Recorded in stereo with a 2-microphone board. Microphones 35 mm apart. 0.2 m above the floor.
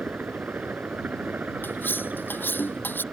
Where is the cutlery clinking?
70° left (ahead or behind).